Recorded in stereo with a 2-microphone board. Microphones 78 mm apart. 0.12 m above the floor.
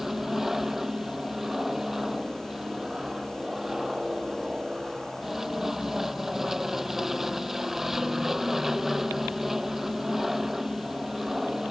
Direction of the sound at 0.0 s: 5° right (ahead or behind).